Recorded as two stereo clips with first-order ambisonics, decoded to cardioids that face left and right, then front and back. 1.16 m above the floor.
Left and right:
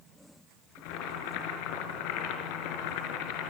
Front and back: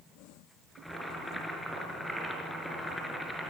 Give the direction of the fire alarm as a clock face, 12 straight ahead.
I don't hear a fire alarm.